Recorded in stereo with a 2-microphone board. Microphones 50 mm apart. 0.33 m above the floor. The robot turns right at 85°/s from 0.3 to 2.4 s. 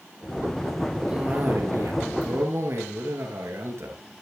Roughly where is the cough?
Behind.